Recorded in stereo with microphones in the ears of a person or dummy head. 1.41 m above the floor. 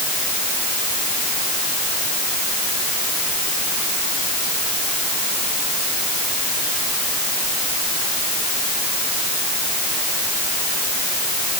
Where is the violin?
No violin in this recording.